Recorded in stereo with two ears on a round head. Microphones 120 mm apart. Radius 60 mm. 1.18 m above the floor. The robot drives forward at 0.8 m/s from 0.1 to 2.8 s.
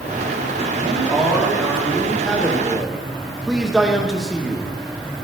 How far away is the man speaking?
About 2.5 m.